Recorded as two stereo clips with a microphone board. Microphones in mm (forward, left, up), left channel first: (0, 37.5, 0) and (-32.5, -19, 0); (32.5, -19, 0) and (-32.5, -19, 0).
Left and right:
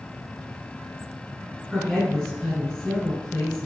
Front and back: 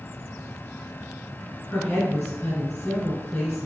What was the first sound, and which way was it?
A woman speaking, 35° right.